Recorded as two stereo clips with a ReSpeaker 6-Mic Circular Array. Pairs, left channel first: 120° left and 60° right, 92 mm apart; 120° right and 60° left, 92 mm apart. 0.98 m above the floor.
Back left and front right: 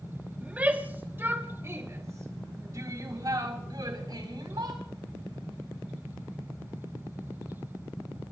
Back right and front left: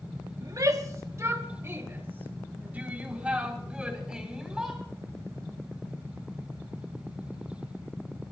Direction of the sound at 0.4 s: 15° left.